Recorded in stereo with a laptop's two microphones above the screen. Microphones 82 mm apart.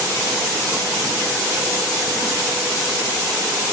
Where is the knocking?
No knocking in this recording.